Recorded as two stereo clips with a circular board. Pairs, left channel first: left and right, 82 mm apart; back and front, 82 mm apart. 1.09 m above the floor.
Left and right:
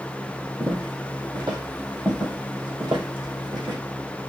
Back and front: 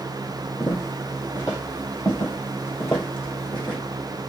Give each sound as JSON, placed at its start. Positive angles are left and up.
{"t": 0.6, "sound": "footsteps", "azimuth_deg": -130, "distance_m": 2.5}